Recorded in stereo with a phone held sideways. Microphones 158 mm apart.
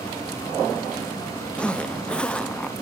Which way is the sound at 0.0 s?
20° left (ahead or behind).